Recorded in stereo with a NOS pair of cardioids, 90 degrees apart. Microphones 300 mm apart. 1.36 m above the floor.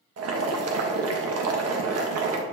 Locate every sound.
0.2 s boiling: 55° right, 1.3 m